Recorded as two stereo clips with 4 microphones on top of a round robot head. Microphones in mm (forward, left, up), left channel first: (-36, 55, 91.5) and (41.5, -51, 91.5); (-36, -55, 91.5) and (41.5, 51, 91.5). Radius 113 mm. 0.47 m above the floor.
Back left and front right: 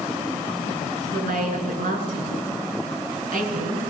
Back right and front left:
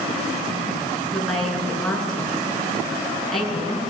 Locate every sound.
1.1 s a woman speaking: 40° right, 7.5 m